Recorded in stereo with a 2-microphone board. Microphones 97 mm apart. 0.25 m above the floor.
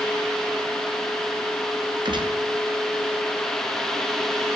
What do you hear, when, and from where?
2.0 s a gunshot: 50° right (ahead or behind), 1.8 m